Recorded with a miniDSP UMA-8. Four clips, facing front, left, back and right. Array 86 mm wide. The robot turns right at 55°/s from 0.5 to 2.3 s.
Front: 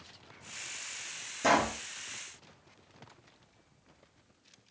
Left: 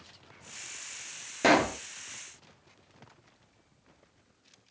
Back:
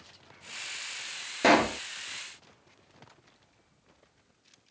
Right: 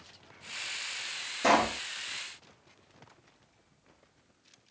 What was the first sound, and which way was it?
A pop, 145° left.